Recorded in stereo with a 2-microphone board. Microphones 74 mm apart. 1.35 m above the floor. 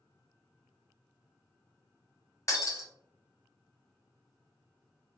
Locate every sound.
2.5 s breaking glass: 45° left (ahead or behind), 1.0 m